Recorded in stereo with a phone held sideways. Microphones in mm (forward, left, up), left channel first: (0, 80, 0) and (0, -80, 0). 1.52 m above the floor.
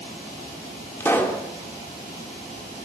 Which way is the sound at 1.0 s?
15° left (ahead or behind).